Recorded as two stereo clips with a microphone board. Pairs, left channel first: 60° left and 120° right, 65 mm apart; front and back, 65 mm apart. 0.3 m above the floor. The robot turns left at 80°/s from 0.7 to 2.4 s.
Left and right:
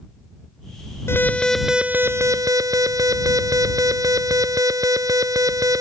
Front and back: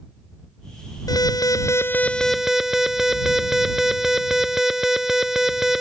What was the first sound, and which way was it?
An alarm, 10° left.